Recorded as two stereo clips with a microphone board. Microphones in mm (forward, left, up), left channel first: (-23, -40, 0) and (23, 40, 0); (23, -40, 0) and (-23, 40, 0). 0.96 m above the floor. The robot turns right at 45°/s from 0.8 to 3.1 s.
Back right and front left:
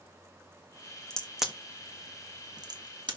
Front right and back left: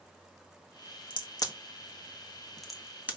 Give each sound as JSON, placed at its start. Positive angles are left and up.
{"t": 1.1, "sound": "a crack", "azimuth_deg": -40, "distance_m": 1.6}